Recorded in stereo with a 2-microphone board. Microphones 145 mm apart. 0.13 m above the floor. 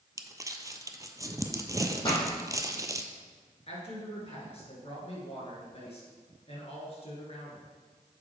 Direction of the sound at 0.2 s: 25° right (ahead or behind).